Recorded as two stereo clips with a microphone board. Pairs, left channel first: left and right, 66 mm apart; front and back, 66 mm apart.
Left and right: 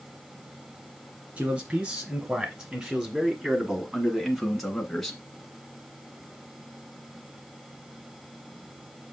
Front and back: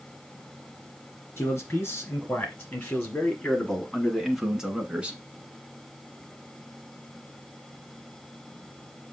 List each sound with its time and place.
1.4 s a man speaking: 35° right, 2.5 m; by 5.2 s 160° left, 1.8 m